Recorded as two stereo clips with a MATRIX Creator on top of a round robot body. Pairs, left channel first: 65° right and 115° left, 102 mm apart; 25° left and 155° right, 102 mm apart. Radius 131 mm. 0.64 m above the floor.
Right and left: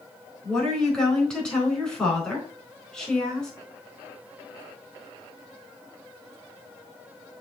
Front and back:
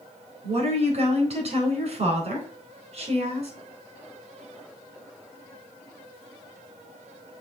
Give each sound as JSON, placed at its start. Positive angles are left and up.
{"t": 0.4, "sound": "a woman speaking", "azimuth_deg": -145, "distance_m": 4.0}